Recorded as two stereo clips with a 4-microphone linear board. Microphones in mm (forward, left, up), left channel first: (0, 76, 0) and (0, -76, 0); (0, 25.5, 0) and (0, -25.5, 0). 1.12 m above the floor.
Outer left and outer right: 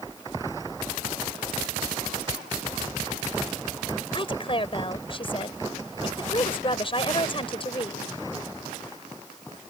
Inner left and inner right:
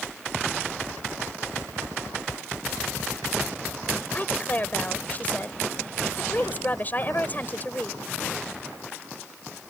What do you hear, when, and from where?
4.1 s a woman speaking: 35° left (ahead or behind)